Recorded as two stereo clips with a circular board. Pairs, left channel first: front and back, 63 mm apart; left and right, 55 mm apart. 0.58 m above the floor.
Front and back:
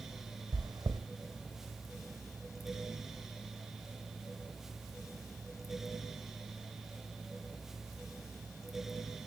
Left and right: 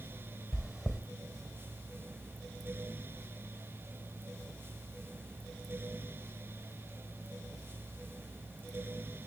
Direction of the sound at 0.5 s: 175° right.